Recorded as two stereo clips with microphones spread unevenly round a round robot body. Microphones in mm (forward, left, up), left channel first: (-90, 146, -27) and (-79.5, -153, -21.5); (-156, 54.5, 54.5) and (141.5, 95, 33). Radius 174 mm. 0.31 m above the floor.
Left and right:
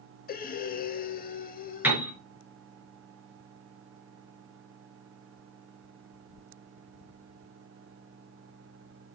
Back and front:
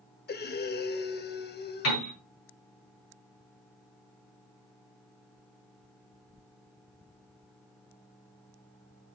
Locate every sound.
0.3 s breathing: 140° left, 0.8 m
1.8 s a piano: 175° right, 4.5 m